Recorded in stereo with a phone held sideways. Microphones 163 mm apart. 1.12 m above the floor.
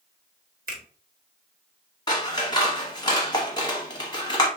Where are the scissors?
25° left (ahead or behind), 0.8 m.